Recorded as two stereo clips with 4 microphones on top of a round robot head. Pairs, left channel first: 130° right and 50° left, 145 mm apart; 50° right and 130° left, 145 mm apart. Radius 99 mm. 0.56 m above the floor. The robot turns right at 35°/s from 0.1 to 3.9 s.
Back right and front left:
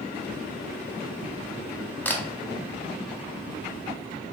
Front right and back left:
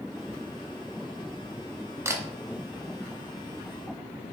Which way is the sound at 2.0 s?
170° left.